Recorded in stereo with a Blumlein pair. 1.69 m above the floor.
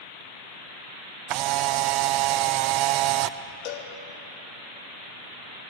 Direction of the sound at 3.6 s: 45° left.